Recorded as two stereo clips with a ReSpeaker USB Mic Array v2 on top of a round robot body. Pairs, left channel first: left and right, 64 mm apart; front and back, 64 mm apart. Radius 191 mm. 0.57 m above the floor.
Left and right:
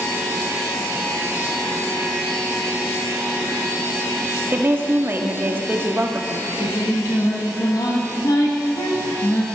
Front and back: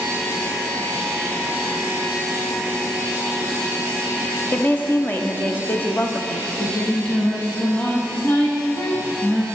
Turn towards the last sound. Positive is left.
turn(degrees=60)